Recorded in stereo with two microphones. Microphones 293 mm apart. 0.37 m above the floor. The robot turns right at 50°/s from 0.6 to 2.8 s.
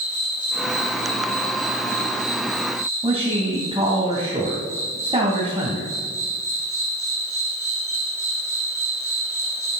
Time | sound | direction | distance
0.0 | an insect | 60° left | 5.5 m
3.0 | a man speaking | 20° right (ahead or behind) | 2 m